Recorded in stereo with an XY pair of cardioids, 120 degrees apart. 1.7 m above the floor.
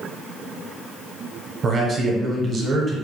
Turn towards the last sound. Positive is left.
turn(degrees=-40)